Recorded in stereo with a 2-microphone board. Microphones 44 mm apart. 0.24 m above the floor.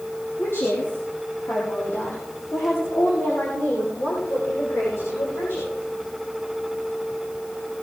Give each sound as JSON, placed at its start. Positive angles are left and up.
{"t": 0.4, "sound": "a woman speaking", "side_deg": 80, "distance_m": 7.0}